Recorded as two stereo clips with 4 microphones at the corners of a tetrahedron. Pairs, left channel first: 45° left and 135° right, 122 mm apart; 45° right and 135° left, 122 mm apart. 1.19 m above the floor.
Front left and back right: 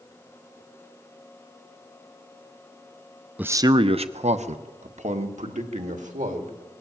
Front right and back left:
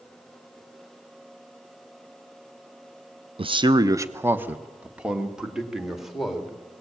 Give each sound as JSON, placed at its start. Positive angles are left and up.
{"t": 3.4, "sound": "a man speaking", "azimuth_deg": 150, "distance_m": 0.6}